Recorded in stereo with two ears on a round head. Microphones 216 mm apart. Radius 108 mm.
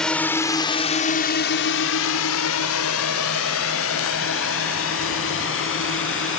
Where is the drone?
5° left (ahead or behind); by 6.4 s 55° left (ahead or behind).